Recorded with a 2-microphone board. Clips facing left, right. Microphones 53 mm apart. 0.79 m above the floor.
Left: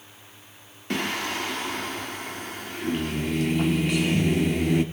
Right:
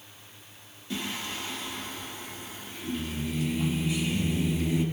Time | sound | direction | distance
0.9 | singing | 70° left (ahead or behind) | 1.5 m